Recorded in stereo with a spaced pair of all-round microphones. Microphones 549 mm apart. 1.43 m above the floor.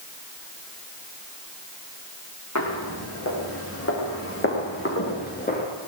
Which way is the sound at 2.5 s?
30° left (ahead or behind).